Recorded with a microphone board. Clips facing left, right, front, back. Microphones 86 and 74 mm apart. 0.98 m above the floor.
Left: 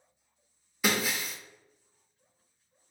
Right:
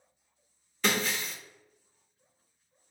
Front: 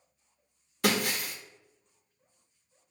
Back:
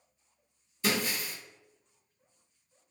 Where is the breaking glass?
10° left, 0.6 m.